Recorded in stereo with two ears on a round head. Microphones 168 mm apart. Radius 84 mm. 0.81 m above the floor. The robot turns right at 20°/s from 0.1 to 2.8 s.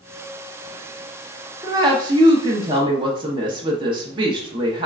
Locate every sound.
1.6 s a woman speaking: 20° right (ahead or behind), 0.7 m; by 4.9 s 25° right (ahead or behind), 0.7 m